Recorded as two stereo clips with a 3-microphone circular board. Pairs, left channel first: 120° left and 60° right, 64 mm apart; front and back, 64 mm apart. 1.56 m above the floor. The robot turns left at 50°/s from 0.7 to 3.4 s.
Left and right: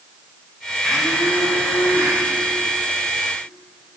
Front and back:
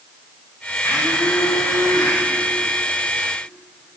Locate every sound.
0.8 s a blender: 45° left, 7 m; by 2.2 s 25° right, 7 m